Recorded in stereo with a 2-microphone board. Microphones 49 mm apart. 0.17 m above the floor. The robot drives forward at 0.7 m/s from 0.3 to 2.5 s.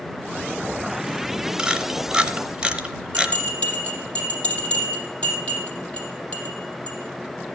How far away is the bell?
About 6.5 m.